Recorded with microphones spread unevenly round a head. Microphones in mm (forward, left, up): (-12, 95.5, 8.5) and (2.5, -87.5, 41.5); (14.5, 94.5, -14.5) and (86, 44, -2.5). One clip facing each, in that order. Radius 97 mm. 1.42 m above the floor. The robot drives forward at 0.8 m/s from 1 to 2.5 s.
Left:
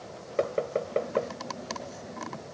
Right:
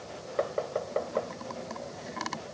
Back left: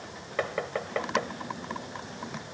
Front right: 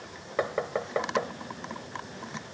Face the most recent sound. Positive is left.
turn(degrees=45)